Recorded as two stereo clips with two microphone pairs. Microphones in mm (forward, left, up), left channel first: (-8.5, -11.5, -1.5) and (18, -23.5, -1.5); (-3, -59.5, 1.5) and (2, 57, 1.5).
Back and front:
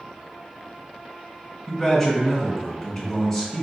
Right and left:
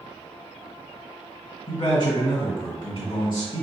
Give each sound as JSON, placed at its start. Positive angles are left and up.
{"t": 1.7, "sound": "a man speaking", "azimuth_deg": -120, "distance_m": 1.8}